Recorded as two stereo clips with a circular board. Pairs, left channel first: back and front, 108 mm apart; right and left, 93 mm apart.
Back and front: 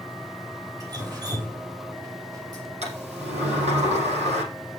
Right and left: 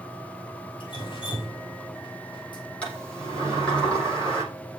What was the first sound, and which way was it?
Dripping, 55° right.